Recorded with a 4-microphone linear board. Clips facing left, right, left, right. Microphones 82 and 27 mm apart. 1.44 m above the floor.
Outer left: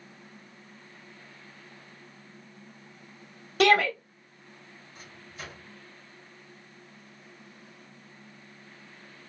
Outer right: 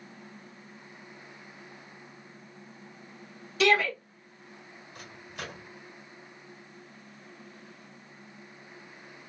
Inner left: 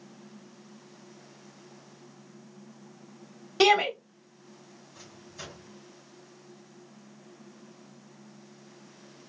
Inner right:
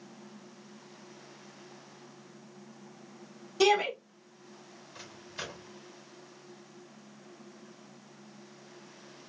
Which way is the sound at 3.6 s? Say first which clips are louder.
Outer left 3 dB, inner left 4 dB; 50° left (ahead or behind).